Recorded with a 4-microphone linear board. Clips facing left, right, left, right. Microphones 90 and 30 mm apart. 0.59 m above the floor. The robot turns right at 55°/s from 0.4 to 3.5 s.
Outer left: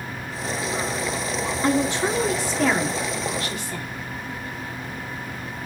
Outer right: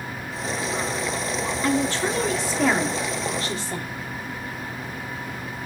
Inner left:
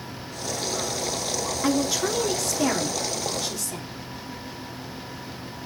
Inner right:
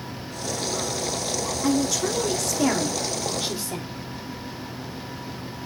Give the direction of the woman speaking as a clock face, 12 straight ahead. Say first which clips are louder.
Outer left 2 dB, inner right 1 dB; 8 o'clock.